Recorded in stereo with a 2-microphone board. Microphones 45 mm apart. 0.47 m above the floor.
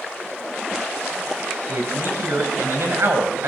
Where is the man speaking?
70° right (ahead or behind), 3 m.